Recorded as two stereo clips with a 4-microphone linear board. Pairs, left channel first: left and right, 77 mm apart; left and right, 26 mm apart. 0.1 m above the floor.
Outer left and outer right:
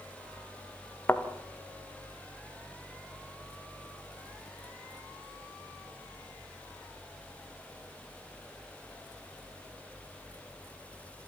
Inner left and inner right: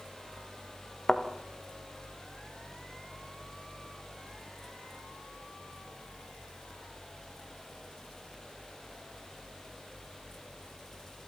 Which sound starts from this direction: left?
A thud, at 1.1 s.